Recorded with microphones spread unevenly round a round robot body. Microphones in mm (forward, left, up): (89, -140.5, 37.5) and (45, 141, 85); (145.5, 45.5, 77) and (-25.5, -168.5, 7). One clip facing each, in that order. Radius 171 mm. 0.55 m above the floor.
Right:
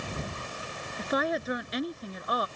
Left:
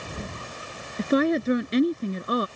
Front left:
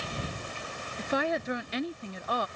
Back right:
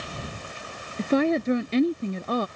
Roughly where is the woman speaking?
Behind.